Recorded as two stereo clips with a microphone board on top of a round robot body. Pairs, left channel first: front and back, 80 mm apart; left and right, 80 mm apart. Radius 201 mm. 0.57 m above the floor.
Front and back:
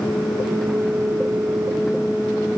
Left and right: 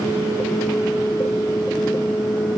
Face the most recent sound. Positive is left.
No sound to turn to.